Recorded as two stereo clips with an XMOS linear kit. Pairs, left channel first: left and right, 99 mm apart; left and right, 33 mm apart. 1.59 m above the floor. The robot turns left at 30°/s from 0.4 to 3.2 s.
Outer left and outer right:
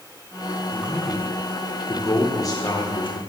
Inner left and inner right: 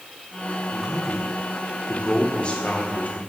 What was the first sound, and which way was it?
A man speaking, 15° right (ahead or behind).